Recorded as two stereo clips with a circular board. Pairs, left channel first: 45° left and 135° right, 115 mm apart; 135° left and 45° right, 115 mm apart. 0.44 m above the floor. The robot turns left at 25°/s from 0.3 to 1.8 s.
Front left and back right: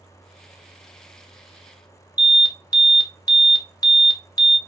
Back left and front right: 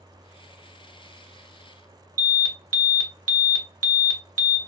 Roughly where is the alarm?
Ahead left.